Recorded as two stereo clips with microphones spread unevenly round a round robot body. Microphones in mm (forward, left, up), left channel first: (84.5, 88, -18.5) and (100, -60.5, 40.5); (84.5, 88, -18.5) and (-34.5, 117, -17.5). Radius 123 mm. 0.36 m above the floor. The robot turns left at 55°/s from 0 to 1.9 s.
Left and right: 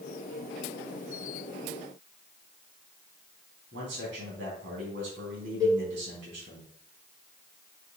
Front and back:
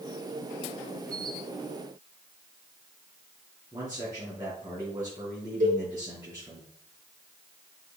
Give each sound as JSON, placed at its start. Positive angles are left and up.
{"t": 3.7, "sound": "a man speaking", "azimuth_deg": -120, "distance_m": 3.5}
{"t": 5.6, "sound": "a cowbell", "azimuth_deg": -165, "distance_m": 1.8}